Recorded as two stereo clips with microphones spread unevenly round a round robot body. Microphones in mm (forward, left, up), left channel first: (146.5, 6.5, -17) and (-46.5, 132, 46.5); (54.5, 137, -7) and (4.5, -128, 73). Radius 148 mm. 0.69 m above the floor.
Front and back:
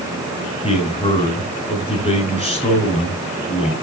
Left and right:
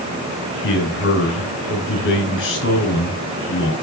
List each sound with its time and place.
0.6 s a man speaking: 30° left, 8.5 m